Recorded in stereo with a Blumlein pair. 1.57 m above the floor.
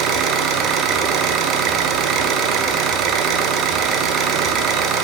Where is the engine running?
30° right, 0.9 m.